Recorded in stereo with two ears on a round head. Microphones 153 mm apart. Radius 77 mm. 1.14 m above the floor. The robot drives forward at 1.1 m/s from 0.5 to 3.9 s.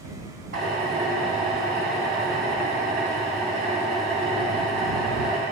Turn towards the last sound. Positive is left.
turn(degrees=-50)  # may be behind; listen again after turning